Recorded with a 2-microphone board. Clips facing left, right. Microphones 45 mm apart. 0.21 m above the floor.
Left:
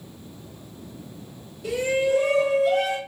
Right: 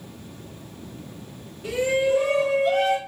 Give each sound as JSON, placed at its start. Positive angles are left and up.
{"t": 1.6, "sound": "a shout", "side_deg": -25, "distance_m": 1.6}